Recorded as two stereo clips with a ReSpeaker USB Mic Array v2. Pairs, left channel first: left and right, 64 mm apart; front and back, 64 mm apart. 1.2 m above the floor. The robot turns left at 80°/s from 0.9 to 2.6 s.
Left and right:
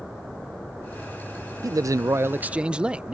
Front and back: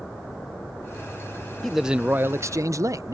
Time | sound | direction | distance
1.6 | a man speaking | 85° right | ?